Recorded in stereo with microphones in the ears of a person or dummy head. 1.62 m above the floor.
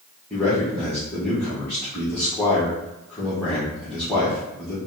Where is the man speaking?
10° left (ahead or behind), 1.4 m.